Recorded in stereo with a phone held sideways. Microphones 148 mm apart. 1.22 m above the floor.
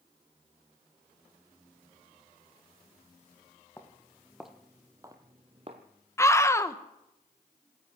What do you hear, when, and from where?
3.8 s footsteps: 15° left (ahead or behind), 1.7 m; by 5.8 s 40° right (ahead or behind), 1.7 m
6.2 s a scream: 15° left (ahead or behind), 0.8 m